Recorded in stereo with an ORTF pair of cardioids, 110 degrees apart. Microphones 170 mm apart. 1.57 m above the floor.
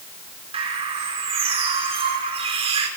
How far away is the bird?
About 5.5 m.